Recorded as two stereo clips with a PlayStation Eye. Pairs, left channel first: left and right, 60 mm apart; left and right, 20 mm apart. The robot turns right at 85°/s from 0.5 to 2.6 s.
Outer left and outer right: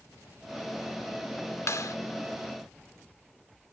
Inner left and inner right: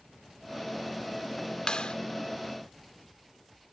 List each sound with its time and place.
1.7 s a clap: 55° left (ahead or behind); by 2.0 s 70° left (ahead or behind)